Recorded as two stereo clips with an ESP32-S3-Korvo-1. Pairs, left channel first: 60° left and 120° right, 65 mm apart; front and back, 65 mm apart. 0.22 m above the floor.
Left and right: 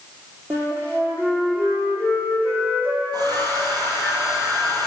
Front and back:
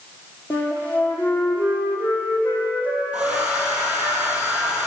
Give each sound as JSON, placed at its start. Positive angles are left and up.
{"t": 0.5, "sound": "a flute", "azimuth_deg": -65, "distance_m": 1.9}
{"t": 3.1, "sound": "a hair dryer", "azimuth_deg": -110, "distance_m": 1.9}